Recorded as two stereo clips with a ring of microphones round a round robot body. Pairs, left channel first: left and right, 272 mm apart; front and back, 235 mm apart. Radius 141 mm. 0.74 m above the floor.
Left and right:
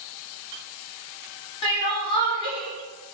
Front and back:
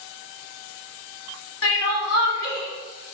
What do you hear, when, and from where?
1.6 s crying: 20° left, 1.2 m